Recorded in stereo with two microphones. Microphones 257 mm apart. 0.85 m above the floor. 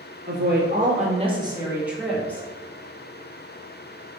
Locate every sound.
0.3 s a woman speaking: 45° right (ahead or behind), 1.4 m; by 2.5 s 10° left (ahead or behind), 1.3 m